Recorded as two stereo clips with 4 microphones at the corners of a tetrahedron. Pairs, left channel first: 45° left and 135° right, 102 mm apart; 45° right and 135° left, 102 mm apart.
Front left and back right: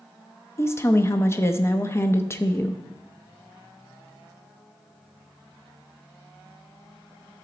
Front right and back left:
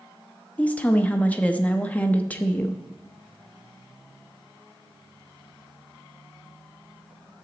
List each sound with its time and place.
0.6 s a woman speaking: 10° left, 0.7 m